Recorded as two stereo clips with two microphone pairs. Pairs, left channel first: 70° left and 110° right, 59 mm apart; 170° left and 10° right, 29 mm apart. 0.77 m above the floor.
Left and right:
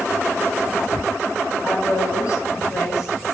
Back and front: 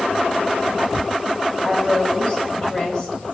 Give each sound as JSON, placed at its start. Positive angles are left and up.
{"t": 1.6, "sound": "a woman speaking", "azimuth_deg": 100, "distance_m": 4.0}